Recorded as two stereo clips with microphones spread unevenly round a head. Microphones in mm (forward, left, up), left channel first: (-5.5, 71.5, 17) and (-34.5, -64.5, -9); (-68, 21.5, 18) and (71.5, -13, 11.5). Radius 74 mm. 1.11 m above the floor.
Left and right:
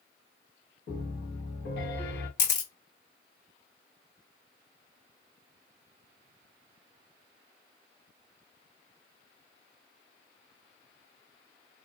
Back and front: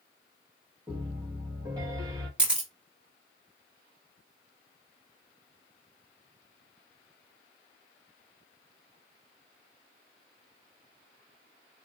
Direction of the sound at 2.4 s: 70° left.